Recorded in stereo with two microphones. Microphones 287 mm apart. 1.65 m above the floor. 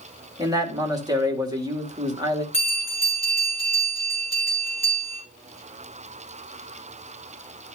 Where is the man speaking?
15° right (ahead or behind), 2 m.